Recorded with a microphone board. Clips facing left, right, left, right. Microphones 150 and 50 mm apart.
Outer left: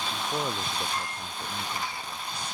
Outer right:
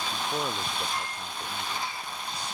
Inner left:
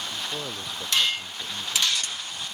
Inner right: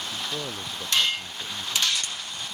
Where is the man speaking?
5° right (ahead or behind); by 2.5 s 15° left (ahead or behind).